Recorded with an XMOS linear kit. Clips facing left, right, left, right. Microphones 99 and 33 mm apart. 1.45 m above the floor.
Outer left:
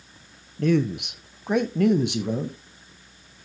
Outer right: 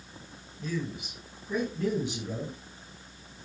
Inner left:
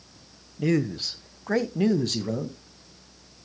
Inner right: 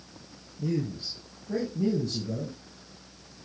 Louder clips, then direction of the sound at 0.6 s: Outer left 13 dB, inner left 6 dB; 70° left (ahead or behind).